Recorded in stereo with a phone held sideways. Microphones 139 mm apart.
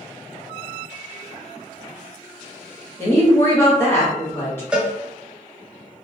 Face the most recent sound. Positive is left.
turn(degrees=-5)  # may be behind; listen again after turning